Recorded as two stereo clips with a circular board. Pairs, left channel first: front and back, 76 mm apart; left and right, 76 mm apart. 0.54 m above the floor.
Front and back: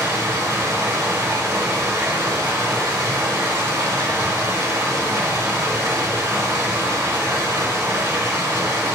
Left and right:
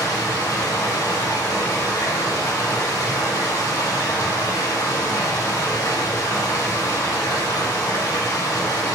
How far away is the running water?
About 0.9 m.